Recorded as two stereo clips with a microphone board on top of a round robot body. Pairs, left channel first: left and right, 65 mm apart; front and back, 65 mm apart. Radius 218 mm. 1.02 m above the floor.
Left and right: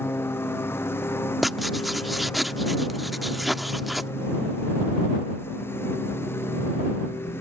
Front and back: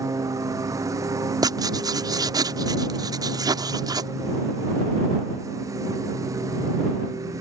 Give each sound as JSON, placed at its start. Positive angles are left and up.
{"t": 0.0, "sound": "a lawn mower", "azimuth_deg": 145}
{"t": 1.4, "sound": "writing", "azimuth_deg": 180}